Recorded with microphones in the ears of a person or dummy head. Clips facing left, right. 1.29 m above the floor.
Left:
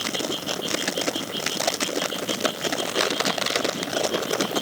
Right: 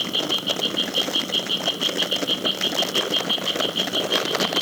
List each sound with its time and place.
0.0 s an insect: 45° right (ahead or behind)